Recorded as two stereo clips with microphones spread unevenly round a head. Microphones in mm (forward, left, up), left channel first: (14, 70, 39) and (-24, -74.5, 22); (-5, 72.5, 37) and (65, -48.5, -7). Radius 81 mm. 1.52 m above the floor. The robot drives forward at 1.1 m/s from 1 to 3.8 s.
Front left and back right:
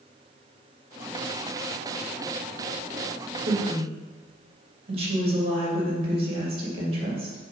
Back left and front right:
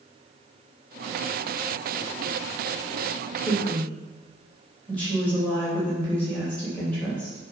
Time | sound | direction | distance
3.5 | a woman speaking | 155° right | 2.5 m